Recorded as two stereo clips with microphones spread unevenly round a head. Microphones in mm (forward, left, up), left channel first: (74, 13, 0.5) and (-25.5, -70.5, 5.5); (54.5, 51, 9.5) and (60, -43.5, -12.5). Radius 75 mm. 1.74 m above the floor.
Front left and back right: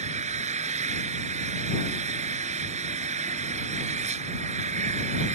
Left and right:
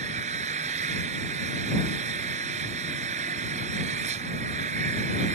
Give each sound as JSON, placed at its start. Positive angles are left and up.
{"t": 0.0, "sound": "an engine running", "azimuth_deg": -110}